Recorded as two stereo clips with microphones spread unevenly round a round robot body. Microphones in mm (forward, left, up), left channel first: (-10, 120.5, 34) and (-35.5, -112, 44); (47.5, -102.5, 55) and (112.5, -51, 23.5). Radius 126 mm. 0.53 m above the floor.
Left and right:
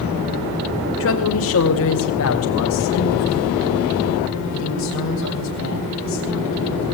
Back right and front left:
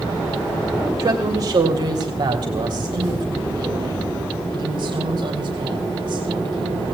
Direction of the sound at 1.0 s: 60° left.